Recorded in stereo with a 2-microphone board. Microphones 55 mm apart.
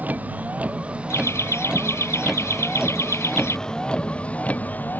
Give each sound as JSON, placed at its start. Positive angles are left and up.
{"t": 0.0, "sound": "a vehicle", "side_deg": -30}
{"t": 1.1, "sound": "laughter", "side_deg": 55}